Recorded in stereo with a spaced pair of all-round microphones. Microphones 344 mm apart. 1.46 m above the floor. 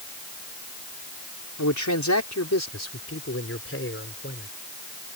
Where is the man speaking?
55° left (ahead or behind); by 4.5 s 35° left (ahead or behind).